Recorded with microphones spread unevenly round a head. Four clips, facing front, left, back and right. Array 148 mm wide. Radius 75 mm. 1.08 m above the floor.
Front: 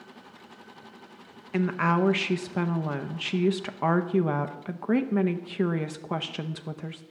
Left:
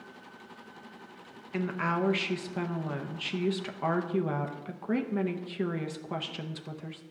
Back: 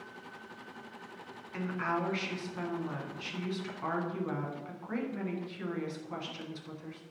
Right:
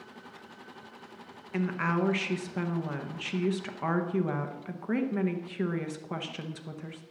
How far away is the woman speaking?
About 0.7 m.